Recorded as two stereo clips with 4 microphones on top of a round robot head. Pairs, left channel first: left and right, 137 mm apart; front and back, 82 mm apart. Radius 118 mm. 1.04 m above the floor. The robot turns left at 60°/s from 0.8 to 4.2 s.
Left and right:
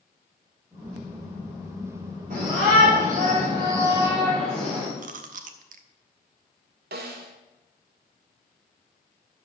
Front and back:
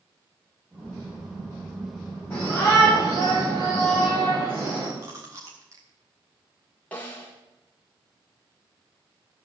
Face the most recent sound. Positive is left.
turn(degrees=-80)